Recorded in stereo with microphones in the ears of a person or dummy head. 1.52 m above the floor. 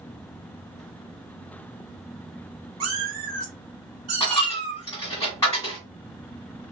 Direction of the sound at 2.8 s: 30° right (ahead or behind).